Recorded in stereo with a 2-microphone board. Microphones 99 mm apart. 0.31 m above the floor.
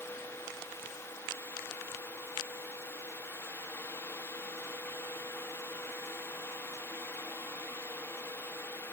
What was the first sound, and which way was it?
Only background noise.